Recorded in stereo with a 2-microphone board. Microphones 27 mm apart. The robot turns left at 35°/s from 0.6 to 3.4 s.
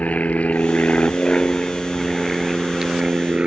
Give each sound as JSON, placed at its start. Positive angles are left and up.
{"t": 0.0, "sound": "an aircraft", "side_deg": 55}